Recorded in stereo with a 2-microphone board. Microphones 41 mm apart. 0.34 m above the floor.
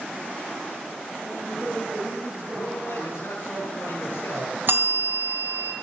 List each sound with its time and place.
1.2 s a woman speaking: 55° right (ahead or behind), 5 m
2.5 s a man speaking: 70° left (ahead or behind), 7.5 m
4.7 s a bell: 60° right (ahead or behind), 2 m